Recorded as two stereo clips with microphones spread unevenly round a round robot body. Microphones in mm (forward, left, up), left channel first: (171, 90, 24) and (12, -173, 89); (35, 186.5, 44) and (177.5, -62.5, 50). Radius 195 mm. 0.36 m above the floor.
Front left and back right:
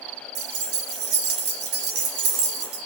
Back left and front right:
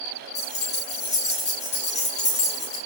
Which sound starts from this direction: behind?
Keys jangling, at 0.3 s.